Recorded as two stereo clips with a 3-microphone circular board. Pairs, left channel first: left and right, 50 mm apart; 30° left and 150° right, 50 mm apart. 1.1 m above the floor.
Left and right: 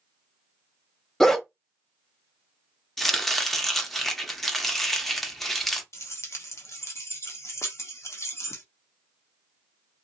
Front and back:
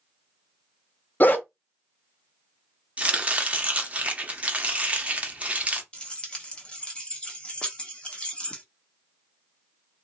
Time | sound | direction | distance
1.2 | a dog barking | 15° left | 0.7 m
3.0 | chopping | 175° left | 0.7 m
5.9 | keys jangling | 100° left | 0.9 m